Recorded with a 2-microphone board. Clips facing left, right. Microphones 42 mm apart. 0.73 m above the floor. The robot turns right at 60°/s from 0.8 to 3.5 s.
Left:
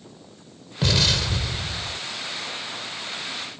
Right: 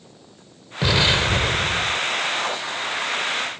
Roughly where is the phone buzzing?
No phone buzzing in this recording.